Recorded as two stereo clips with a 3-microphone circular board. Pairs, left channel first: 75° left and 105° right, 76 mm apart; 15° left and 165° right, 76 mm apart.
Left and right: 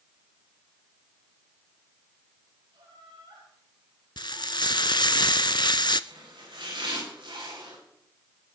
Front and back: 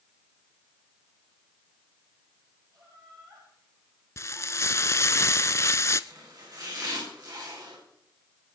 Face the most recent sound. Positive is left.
turn(degrees=-120)